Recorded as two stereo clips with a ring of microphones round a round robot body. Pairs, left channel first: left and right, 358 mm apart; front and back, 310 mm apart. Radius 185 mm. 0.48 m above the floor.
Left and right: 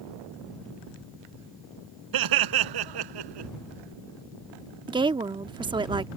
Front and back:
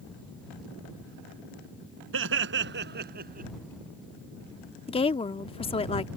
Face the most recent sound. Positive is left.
turn(degrees=-35)